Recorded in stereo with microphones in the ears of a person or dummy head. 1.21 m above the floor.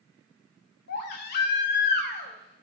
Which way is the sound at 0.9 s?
55° left (ahead or behind).